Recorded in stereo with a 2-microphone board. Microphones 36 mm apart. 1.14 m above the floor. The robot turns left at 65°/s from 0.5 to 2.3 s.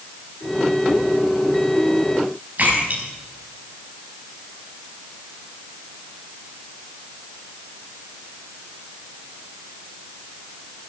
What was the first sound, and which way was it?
A splash, 50° right (ahead or behind).